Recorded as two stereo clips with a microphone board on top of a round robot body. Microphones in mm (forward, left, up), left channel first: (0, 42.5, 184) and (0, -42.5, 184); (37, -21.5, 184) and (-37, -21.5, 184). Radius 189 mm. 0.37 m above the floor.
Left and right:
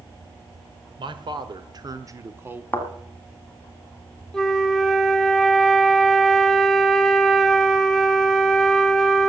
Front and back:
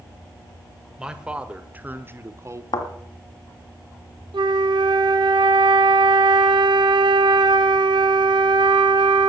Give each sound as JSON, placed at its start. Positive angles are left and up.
{"t": 1.0, "sound": "a man speaking", "azimuth_deg": -100, "distance_m": 1.9}
{"t": 2.7, "sound": "a thud", "azimuth_deg": 20, "distance_m": 1.8}
{"t": 4.3, "sound": "a flute", "azimuth_deg": 175, "distance_m": 0.7}